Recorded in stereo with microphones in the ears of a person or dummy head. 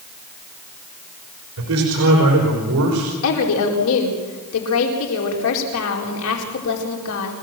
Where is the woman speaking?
70° left (ahead or behind), 4.5 m.